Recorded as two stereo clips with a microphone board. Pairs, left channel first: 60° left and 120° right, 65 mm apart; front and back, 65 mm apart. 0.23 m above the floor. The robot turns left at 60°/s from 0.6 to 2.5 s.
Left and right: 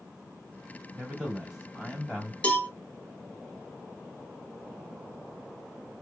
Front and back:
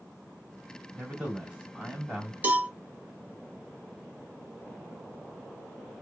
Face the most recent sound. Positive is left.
turn(degrees=125)